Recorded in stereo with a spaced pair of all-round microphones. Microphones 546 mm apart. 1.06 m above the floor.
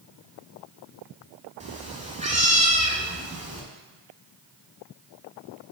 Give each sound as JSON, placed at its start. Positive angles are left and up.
{"t": 1.6, "sound": "a cat meowing", "side_deg": -15, "distance_m": 1.0}